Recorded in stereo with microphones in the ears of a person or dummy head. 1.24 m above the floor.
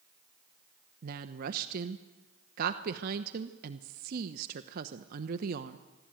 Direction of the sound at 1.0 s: 60° right (ahead or behind).